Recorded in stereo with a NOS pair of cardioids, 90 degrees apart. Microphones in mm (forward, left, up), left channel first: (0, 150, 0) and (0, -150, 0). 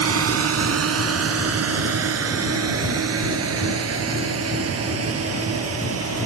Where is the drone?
50° right.